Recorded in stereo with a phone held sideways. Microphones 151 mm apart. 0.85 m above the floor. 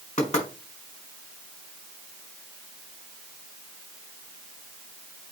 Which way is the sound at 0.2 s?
45° left (ahead or behind).